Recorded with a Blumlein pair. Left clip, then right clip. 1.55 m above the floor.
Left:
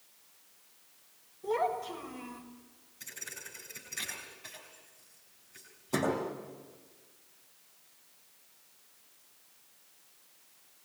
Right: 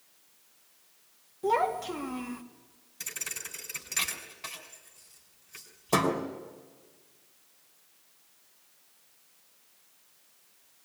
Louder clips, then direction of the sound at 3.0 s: Right 6 dB; 45° right.